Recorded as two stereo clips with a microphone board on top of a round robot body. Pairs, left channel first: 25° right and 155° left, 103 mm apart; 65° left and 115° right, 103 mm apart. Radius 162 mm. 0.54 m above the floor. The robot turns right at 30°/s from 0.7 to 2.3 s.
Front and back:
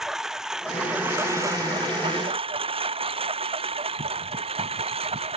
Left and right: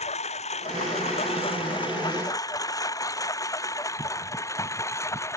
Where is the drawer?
I don't hear a drawer.